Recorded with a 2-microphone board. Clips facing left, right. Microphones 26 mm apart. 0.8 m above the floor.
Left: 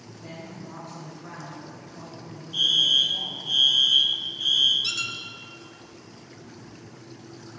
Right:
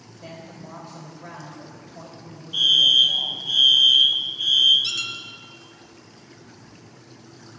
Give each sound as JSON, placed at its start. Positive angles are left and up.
{"t": 0.2, "sound": "a woman speaking", "side_deg": -65, "distance_m": 3.5}
{"t": 2.5, "sound": "a fire alarm", "side_deg": -20, "distance_m": 1.5}
{"t": 4.8, "sound": "a squeak", "side_deg": 0, "distance_m": 1.1}